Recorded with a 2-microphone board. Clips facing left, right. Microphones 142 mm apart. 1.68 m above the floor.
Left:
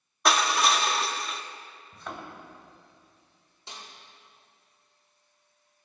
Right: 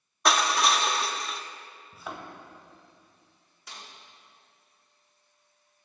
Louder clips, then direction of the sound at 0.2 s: Even; centre (ahead or behind).